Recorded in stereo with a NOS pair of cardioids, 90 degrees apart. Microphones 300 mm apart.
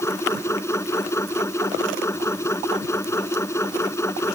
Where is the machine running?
10° left.